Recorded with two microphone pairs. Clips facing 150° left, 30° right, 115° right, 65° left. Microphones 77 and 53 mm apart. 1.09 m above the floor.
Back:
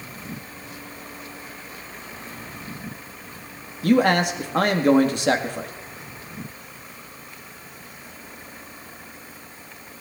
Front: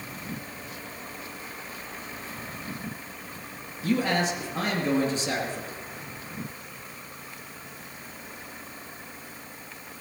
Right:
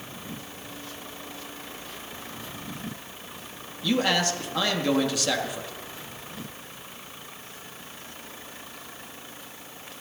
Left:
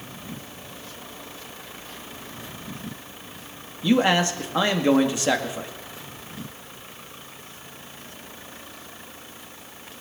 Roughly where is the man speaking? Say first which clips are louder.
Back 7 dB, left 5 dB; behind left.